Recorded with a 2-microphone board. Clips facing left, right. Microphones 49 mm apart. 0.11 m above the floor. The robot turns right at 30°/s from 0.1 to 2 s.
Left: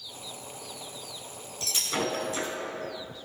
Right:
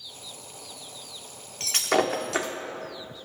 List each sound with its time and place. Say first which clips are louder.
1.6 s breaking glass: right 7 dB; 65° right (ahead or behind), 1.5 m; by 2.5 s 80° right, 1.5 m